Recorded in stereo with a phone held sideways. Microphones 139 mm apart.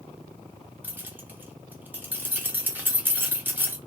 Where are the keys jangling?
15° right (ahead or behind), 0.7 m.